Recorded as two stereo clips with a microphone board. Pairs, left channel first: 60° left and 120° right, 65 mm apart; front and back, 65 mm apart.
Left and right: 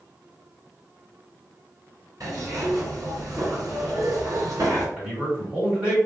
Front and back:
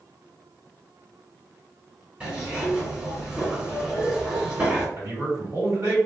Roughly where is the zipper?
Right.